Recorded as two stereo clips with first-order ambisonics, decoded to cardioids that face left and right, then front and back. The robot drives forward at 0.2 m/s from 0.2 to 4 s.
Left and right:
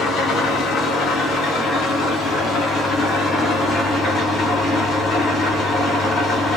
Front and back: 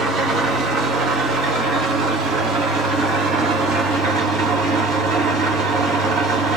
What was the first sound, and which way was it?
An engine running, 135° left.